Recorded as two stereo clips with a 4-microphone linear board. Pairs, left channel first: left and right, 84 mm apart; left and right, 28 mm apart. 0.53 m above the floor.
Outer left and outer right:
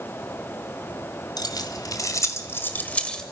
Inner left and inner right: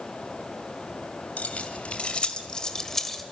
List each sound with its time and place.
1.4 s keys jangling: 55° left (ahead or behind), 2 m; by 3.2 s 10° left (ahead or behind), 1.6 m